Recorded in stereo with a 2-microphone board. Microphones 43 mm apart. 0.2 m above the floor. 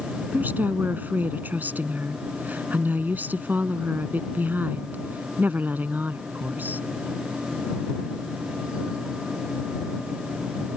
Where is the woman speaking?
45° right (ahead or behind).